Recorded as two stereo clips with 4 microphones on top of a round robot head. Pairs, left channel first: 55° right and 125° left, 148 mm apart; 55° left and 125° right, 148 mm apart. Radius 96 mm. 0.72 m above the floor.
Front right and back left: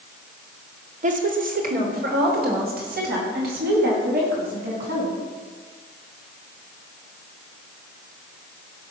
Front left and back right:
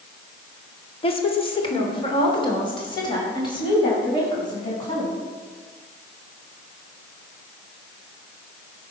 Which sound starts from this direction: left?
A woman speaking, at 1.0 s.